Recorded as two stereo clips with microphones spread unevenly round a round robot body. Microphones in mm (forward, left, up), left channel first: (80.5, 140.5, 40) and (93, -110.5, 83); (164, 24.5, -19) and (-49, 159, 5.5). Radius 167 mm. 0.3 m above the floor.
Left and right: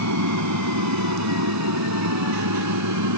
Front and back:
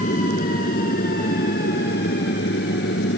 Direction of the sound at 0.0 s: 95° right.